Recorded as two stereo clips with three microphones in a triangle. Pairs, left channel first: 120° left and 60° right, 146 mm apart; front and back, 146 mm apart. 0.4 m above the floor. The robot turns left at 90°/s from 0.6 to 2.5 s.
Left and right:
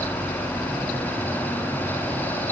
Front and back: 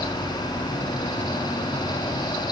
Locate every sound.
Only background noise.